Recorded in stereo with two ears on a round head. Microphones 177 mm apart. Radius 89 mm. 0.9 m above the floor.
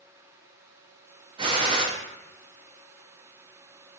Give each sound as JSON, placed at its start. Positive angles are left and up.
{"t": 1.4, "sound": "a gunshot", "side_deg": -25, "distance_m": 0.6}